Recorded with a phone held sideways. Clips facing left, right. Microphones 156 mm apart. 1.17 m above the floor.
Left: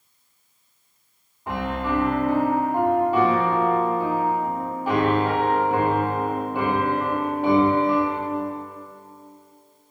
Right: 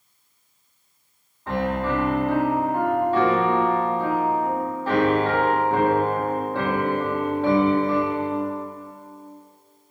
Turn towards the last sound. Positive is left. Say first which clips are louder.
# right 2 dB
turn(degrees=15)  # may be behind; listen again after turning